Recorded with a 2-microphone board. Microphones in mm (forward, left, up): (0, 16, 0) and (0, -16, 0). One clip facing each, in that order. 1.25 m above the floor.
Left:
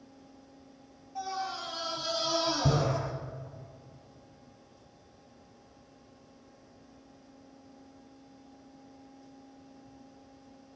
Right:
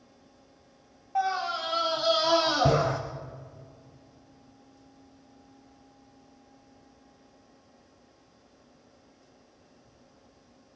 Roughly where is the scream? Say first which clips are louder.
Right 8 dB; right.